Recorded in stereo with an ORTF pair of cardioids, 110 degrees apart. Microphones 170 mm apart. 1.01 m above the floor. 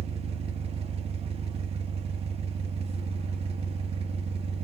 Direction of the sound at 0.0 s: 35° right.